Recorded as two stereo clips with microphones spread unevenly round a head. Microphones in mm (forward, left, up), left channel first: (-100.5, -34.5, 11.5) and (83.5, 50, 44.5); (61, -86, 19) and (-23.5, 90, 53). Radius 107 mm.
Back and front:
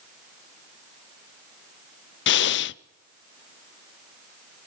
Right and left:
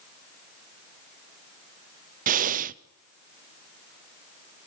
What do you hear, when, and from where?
2.3 s breathing: 170° left, 0.5 m